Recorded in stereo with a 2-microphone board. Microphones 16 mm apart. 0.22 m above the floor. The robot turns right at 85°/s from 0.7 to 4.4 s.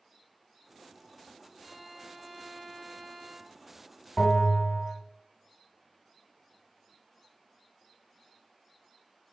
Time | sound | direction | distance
1.6 | a violin | 145° left | 1.7 m
4.2 | a bell | 35° left (ahead or behind) | 1.2 m